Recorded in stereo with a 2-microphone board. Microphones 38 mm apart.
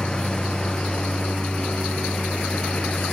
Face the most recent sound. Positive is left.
turn(degrees=30)  # may be behind; listen again after turning